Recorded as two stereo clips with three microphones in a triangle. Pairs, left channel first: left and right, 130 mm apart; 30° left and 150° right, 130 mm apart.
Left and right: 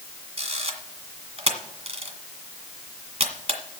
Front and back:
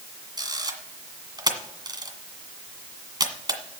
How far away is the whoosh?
I don't hear a whoosh.